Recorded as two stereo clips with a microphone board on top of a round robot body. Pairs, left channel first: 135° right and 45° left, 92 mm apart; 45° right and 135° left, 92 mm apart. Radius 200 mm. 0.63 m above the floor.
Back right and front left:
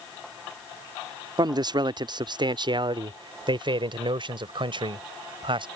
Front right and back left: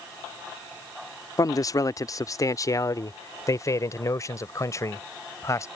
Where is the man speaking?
5° left; by 5.7 s 10° left.